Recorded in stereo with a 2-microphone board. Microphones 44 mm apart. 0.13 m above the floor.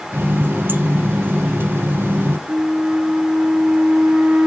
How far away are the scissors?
No scissors in this recording.